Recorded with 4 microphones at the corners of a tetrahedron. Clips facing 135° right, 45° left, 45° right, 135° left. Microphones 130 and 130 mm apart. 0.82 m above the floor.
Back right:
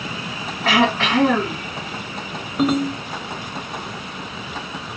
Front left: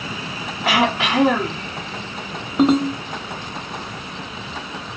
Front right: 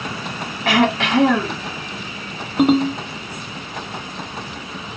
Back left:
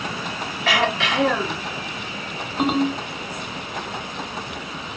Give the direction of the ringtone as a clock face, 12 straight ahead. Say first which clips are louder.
Front left 3 dB, front right 5 dB; 1 o'clock.